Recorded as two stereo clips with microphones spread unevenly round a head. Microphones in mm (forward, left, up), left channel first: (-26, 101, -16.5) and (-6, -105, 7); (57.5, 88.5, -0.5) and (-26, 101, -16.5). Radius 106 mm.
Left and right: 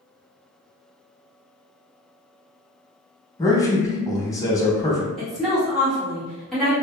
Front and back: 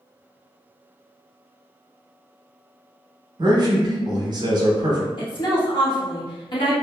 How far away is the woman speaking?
About 1.3 m.